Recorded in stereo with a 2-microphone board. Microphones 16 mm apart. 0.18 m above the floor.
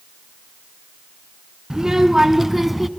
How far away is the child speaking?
About 1.6 m.